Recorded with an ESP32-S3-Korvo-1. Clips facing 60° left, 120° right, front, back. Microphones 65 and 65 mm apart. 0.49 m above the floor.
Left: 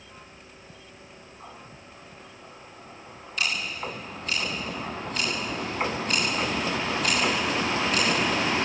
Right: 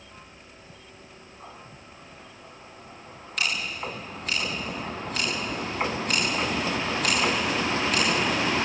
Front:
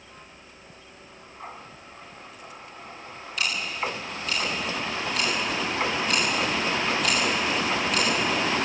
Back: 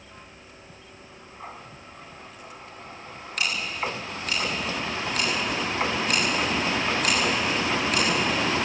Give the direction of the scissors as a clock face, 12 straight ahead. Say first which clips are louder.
Even, even; 5 o'clock.